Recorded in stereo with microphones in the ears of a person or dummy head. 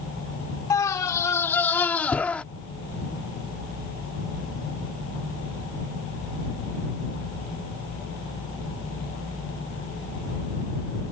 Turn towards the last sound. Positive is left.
turn(degrees=5)  # may be behind; listen again after turning